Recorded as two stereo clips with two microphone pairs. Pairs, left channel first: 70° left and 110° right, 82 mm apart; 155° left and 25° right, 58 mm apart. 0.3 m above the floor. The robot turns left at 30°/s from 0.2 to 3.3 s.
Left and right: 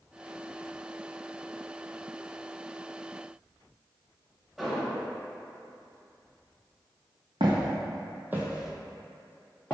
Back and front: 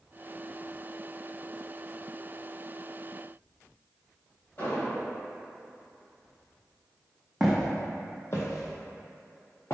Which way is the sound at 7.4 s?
110° right.